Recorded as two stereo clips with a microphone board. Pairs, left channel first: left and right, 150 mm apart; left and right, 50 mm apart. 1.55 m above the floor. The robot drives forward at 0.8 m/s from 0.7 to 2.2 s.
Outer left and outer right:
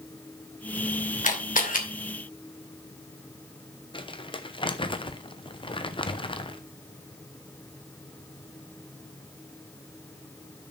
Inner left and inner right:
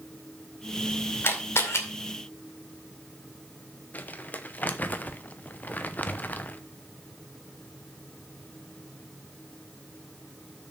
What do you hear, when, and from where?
1.2 s a camera shutter: 55° left (ahead or behind), 2.5 m; by 1.8 s 60° left (ahead or behind), 2 m
3.9 s crumpling: 35° left (ahead or behind), 0.8 m